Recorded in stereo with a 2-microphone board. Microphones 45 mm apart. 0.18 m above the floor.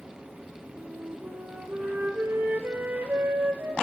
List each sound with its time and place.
0.8 s a flute: 45° right (ahead or behind), 1.3 m